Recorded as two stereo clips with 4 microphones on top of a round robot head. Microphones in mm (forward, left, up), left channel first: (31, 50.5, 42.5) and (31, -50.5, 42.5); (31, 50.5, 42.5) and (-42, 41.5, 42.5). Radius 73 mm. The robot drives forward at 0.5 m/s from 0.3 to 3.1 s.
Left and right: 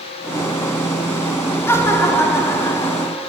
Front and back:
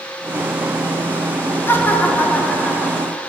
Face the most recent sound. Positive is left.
turn(degrees=95)